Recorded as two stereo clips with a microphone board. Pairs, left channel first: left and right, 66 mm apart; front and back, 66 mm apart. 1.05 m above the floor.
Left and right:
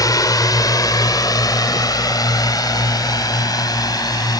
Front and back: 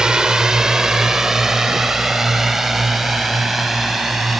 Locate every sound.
0.0 s a drone: 100° left; by 4.4 s 90° left